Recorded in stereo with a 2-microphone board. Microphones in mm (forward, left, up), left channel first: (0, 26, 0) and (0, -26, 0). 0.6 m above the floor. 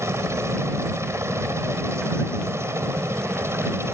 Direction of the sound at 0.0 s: 60° right (ahead or behind).